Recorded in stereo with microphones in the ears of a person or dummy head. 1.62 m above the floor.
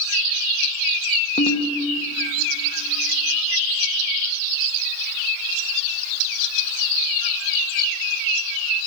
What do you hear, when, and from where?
1.4 s a ringtone: 40° left (ahead or behind), 1.1 m